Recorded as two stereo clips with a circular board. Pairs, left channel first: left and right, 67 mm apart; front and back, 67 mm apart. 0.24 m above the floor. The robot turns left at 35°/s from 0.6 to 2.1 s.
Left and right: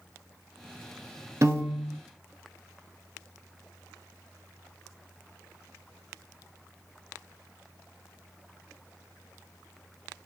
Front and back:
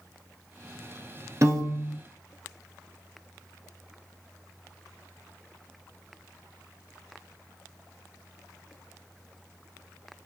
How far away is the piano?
About 0.7 m.